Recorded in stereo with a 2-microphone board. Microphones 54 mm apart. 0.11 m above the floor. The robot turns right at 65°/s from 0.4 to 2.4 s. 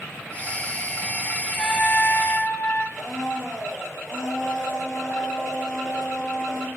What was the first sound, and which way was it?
A trumpet, 5° left.